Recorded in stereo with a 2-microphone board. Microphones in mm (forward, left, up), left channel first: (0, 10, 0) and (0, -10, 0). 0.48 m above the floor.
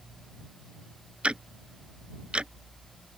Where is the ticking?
85° right.